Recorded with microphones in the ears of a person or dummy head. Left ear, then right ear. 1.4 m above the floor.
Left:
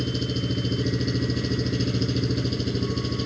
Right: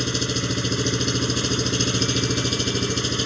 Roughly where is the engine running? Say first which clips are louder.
Right 5 dB; right.